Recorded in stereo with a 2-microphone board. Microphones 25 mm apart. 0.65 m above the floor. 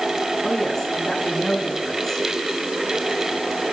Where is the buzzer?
No buzzer in this recording.